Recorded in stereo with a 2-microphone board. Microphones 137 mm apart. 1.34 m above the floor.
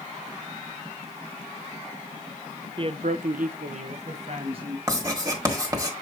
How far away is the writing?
About 1.6 m.